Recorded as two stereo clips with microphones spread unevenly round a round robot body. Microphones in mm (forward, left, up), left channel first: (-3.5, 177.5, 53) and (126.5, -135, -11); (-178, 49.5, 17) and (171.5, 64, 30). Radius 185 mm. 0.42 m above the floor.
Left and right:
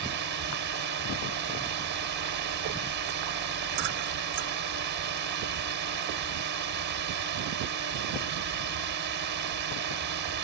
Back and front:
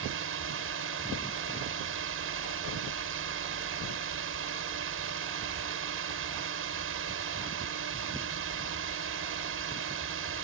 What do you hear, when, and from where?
0.0 s a drone: 40° right